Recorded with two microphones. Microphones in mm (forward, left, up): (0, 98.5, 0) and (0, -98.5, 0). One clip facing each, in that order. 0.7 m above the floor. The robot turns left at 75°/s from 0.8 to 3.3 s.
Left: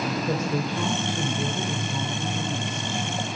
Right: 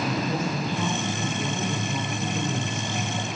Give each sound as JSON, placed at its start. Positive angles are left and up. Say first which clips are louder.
{"t": 0.3, "sound": "a woman speaking", "louder": "left 1 dB", "azimuth_deg": 80, "distance_m": 2.0}